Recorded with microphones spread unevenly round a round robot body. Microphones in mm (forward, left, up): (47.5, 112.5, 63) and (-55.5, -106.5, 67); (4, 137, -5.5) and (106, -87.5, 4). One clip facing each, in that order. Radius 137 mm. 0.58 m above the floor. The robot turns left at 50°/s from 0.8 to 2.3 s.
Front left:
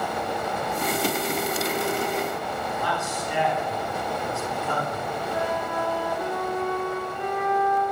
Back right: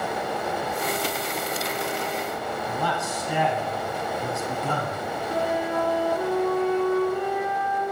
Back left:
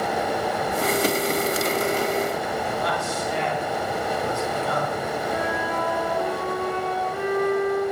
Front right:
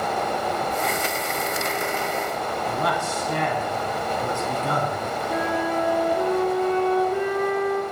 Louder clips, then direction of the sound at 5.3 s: Back right 4 dB, front right 2 dB; 60° right.